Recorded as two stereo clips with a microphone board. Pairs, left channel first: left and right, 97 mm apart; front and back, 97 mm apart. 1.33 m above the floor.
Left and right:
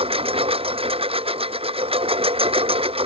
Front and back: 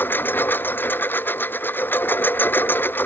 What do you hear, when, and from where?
0.0 s a lawn mower: 70° right